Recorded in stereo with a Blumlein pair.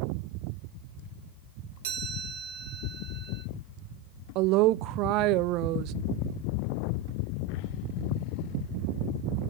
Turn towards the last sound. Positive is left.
turn(degrees=-40)